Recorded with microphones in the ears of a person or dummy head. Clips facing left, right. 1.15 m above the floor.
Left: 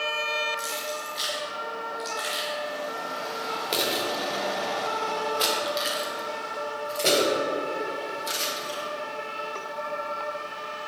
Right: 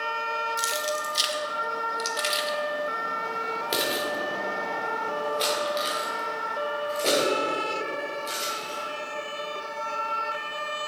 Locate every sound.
0.6 s keys jangling: 70° right (ahead or behind), 1.4 m; by 8.8 s 20° left (ahead or behind), 4.5 m